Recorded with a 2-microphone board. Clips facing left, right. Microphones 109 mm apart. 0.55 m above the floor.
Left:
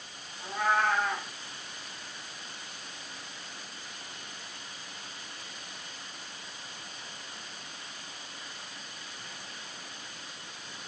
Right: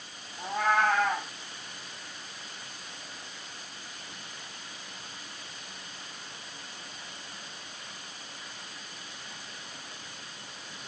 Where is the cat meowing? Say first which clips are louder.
Right 2 dB; 65° right (ahead or behind), 1.4 m.